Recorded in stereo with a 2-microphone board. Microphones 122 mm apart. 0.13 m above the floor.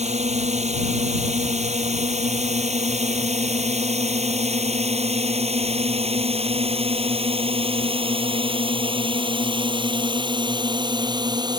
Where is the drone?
65° right (ahead or behind); by 11.6 s 35° right (ahead or behind).